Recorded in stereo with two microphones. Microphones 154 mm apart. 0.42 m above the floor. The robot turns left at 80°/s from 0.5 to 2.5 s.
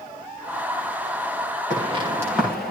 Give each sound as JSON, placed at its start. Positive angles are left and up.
{"t": 1.7, "sound": "footsteps", "side_deg": -55, "distance_m": 8.5}